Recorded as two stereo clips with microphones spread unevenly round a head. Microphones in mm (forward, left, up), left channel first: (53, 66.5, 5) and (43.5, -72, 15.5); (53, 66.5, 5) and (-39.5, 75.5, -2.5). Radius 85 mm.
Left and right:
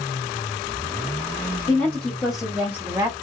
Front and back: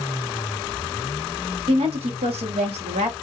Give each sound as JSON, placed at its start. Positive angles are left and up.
{"t": 1.7, "sound": "a woman speaking", "azimuth_deg": 165, "distance_m": 1.4}